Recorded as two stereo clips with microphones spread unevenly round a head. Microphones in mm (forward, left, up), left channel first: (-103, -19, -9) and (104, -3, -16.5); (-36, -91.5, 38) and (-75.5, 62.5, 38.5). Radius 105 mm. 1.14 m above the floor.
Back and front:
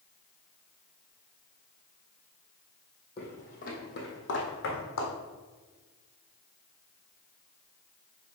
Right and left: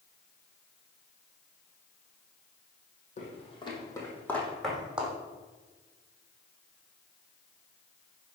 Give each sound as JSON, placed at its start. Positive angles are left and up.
{"t": 3.2, "sound": "footsteps", "azimuth_deg": -115, "distance_m": 2.5}